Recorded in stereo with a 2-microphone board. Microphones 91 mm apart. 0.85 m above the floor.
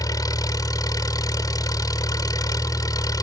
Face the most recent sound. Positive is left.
turn(degrees=45)  # may be behind; listen again after turning